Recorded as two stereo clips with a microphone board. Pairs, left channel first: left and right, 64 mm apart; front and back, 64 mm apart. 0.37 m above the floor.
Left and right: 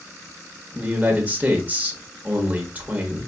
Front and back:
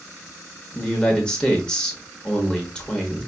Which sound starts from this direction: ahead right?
A man speaking, at 0.8 s.